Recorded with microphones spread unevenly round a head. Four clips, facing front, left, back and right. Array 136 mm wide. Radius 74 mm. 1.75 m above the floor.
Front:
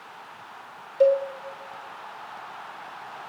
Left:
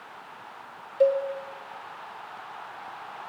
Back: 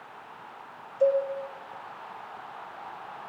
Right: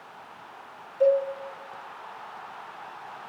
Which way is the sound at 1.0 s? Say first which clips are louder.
Right 1 dB, front 4 dB; 30° left.